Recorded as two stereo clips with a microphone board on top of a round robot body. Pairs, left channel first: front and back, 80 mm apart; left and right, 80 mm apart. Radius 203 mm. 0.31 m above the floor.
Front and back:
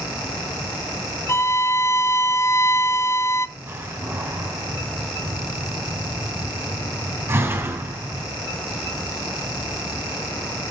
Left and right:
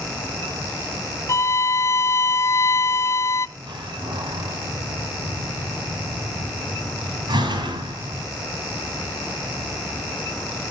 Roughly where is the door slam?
Behind right.